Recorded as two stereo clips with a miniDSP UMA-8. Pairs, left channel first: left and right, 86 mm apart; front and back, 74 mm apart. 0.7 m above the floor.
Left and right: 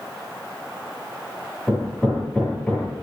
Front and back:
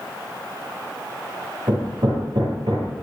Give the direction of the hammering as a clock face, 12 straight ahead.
6 o'clock.